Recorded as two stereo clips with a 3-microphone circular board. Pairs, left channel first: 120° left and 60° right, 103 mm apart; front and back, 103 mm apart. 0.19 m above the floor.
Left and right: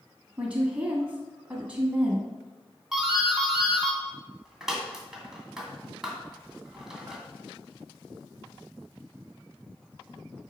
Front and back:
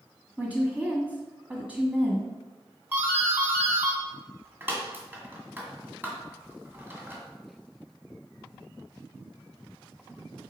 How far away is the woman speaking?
About 1.4 m.